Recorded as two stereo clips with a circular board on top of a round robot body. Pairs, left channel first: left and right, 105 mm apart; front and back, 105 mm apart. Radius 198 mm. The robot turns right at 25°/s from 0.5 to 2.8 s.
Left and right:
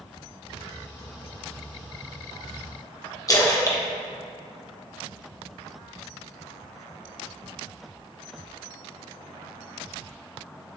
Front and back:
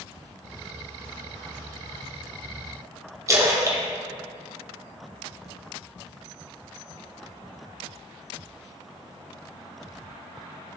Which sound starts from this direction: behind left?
A splash, at 3.3 s.